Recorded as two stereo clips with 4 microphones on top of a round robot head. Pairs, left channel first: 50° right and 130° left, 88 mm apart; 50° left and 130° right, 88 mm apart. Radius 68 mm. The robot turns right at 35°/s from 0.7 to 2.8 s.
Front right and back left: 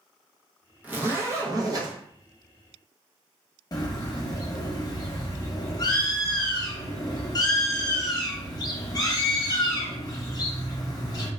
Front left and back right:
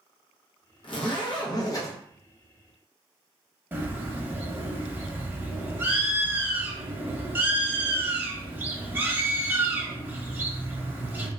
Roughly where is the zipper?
Ahead left.